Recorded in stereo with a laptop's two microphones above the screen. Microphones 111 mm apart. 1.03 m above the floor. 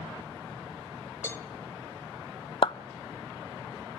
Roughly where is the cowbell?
Left.